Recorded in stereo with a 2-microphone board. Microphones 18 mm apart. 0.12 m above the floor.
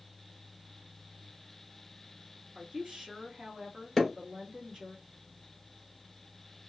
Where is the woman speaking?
45° right (ahead or behind), 1.4 m.